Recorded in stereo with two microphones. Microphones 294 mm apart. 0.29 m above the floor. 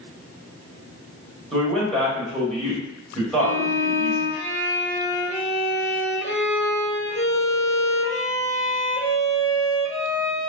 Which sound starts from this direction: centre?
A man speaking, at 1.5 s.